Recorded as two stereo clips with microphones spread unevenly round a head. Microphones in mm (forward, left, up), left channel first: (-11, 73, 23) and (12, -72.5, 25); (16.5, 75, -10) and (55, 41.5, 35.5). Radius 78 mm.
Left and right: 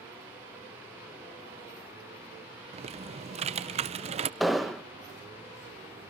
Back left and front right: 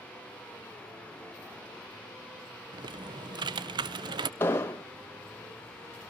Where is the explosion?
170° right, 0.9 m.